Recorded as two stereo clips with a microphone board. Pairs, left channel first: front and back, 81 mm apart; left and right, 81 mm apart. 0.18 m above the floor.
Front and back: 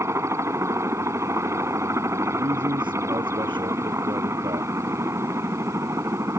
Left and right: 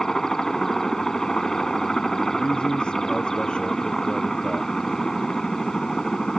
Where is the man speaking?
170° left.